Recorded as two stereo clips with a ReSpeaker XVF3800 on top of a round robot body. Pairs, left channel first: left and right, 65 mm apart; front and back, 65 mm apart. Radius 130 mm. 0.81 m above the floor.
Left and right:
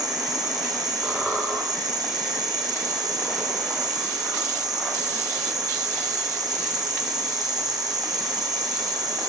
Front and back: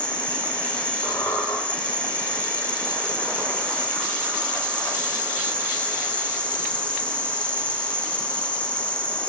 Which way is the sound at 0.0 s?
70° right.